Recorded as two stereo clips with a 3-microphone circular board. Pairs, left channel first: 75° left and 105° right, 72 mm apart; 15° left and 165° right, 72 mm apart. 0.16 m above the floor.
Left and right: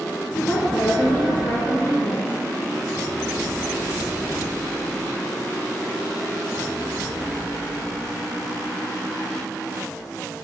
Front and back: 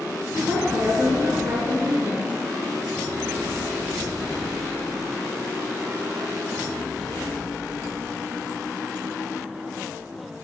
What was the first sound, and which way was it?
A woman speaking, 135° left.